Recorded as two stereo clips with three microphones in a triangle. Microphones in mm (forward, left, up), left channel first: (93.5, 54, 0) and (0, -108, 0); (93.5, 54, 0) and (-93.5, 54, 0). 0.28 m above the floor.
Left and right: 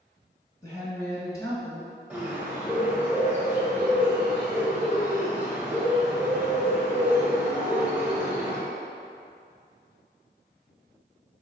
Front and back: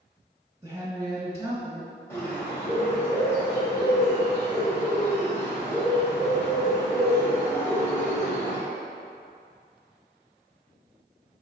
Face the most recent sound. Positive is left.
turn(degrees=-55)